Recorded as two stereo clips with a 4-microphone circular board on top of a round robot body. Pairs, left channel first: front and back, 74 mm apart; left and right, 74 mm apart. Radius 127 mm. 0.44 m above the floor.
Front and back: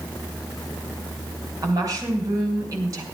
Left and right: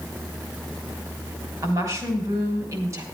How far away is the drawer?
No drawer in this recording.